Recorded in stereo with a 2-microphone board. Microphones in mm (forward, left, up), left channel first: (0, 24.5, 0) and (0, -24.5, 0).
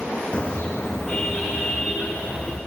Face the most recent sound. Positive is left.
turn(degrees=0)  # may be behind; listen again after turning